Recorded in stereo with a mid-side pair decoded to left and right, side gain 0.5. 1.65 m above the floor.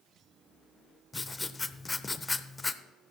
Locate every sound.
1.1 s writing: 20° left, 0.7 m